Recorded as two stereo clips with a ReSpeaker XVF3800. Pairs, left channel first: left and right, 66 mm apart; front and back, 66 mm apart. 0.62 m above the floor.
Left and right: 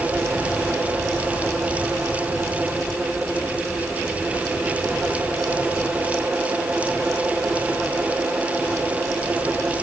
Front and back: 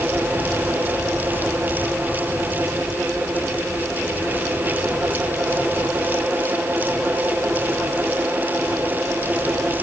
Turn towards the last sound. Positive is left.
No sound to turn to.